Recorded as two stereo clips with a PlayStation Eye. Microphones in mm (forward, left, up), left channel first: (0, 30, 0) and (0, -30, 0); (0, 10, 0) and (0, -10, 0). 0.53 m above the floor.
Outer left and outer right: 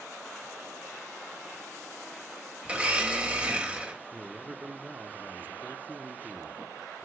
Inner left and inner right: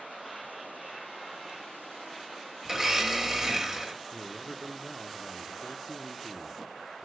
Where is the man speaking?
35° right (ahead or behind), 0.7 m.